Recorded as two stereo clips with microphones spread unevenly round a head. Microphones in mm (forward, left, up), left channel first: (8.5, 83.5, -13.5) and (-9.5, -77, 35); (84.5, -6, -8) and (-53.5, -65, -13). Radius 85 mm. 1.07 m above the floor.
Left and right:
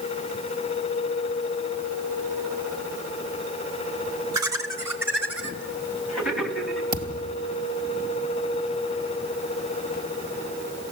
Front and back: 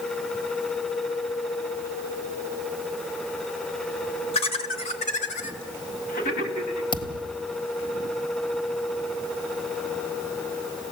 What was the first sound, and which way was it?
Laughter, 25° right.